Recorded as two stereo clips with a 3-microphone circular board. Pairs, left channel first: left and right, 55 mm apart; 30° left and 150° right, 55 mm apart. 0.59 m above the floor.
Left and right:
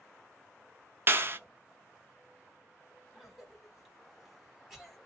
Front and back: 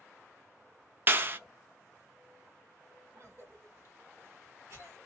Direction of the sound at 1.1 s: 115° right.